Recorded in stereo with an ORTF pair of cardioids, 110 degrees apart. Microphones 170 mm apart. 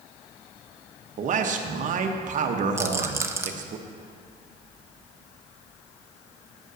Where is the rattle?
15° right, 0.7 m.